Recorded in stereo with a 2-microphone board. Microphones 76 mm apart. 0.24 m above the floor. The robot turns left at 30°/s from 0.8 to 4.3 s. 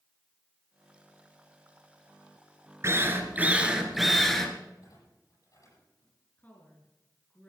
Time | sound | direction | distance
2.8 | a drill | 145° right | 2 m
4.8 | a clunk | 50° left (ahead or behind) | 10 m
6.4 | a woman speaking | 25° left (ahead or behind) | 3.5 m